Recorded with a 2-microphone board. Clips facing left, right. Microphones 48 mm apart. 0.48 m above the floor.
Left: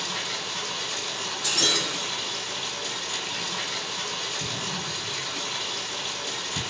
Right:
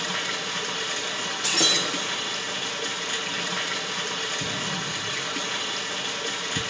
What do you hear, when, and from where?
0.0 s running water: 75° right (ahead or behind), 4 m
1.4 s breaking glass: 75° right (ahead or behind), 8.5 m
4.4 s an explosion: 55° right (ahead or behind), 1.8 m